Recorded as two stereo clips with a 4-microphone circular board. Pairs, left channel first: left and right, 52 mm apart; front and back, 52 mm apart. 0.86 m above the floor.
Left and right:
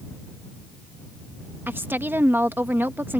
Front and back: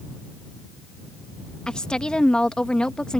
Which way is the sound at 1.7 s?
70° right.